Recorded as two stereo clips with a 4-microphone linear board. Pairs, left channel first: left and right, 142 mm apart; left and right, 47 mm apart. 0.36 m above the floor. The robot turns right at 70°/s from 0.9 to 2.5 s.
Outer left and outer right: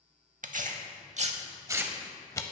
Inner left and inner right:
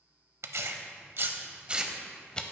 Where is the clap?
I don't hear a clap.